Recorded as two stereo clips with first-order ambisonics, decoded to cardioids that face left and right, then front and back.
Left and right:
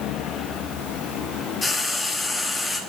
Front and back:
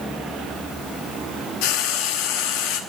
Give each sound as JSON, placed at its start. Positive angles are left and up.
{"t": 1.6, "sound": "frying", "azimuth_deg": 10, "distance_m": 0.8}